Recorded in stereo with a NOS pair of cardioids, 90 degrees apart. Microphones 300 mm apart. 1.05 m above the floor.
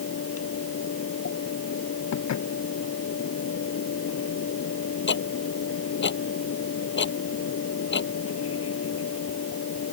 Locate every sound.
0.0 s a fan: 50° left
2.1 s dishes clattering: 65° left
5.1 s ticking: 40° left